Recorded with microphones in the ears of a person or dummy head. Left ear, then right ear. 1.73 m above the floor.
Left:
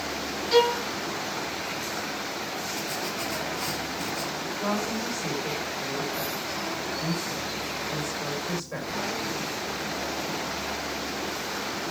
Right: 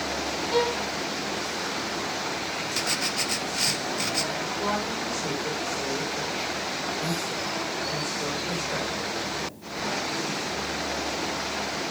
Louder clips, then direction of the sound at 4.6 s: Left 1 dB; 15° left (ahead or behind).